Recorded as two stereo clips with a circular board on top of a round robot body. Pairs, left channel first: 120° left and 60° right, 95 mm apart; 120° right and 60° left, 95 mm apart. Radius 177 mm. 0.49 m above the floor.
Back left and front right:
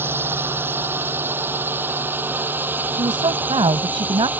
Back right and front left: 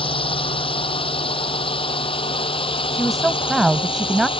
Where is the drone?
125° right; by 4.4 s 130° right.